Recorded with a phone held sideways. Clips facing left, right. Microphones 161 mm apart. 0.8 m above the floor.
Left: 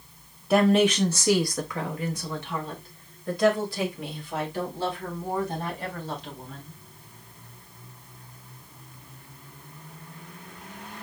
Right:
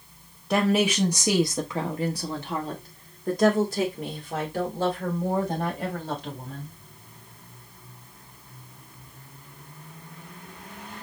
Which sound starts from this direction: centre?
A woman speaking, at 0.5 s.